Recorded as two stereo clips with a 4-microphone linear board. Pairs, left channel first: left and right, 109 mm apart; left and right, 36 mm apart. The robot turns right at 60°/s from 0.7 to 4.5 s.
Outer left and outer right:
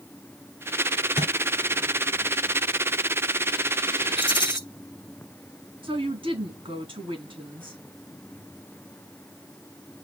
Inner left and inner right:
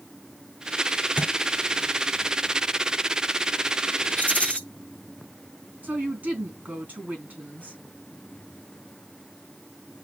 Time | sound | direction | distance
1.2 | a thud | 55° left (ahead or behind) | 3.5 m
4.2 | a rattle | 50° left (ahead or behind) | 0.6 m
5.8 | a woman speaking | 50° right (ahead or behind) | 3 m